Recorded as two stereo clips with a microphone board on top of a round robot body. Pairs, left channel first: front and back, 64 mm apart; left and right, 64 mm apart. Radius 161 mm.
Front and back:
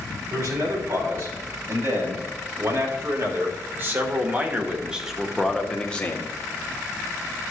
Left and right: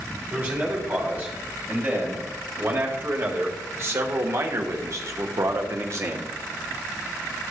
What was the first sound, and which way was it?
A man speaking, 155° right.